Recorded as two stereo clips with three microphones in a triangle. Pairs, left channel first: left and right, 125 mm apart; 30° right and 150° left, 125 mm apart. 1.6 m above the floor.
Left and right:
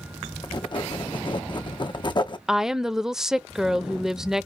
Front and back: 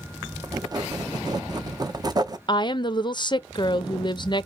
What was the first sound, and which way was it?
Writing, 110° left.